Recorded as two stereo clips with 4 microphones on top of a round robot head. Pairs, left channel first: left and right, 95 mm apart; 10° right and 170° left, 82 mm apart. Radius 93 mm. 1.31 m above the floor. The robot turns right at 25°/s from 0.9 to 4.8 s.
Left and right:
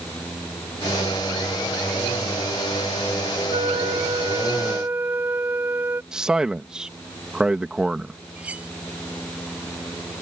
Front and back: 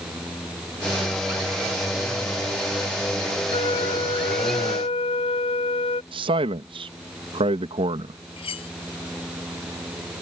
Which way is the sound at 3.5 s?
50° right.